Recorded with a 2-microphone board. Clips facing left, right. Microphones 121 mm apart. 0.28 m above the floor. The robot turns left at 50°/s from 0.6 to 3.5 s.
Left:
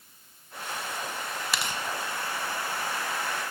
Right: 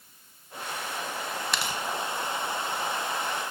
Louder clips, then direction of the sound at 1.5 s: Even; 5° left (ahead or behind).